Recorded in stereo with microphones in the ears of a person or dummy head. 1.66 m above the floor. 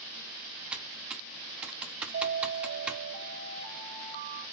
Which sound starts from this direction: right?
An alarm, at 2.1 s.